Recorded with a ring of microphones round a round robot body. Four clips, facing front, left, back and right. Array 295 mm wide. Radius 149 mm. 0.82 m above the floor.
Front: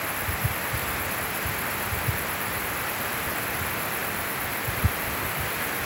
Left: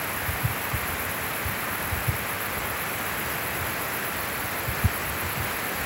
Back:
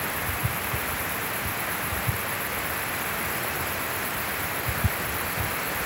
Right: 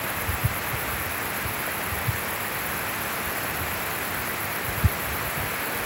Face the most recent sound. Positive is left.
No sound to turn to.